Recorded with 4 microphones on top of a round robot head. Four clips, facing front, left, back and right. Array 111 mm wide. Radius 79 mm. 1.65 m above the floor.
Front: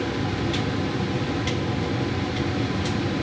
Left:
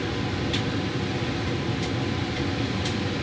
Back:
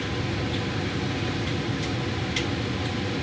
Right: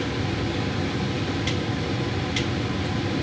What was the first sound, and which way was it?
Only background noise.